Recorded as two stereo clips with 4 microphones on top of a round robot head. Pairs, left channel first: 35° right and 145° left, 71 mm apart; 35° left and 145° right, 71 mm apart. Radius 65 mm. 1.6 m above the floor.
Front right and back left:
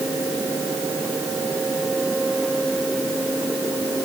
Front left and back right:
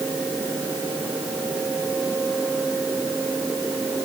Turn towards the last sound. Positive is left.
No sound to turn to.